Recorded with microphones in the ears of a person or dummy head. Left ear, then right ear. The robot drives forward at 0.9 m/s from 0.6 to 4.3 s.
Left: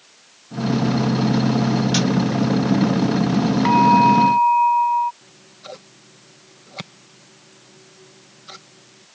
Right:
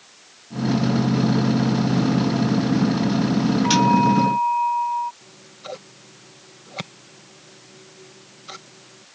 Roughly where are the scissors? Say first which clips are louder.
Right 2 dB; centre.